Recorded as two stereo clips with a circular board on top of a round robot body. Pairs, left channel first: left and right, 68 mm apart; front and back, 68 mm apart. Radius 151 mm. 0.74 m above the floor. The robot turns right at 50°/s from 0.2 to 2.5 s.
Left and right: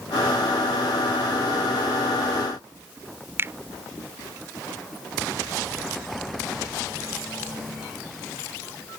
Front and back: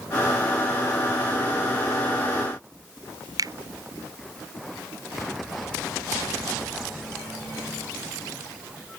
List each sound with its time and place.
3.4 s a finger snap: 150° right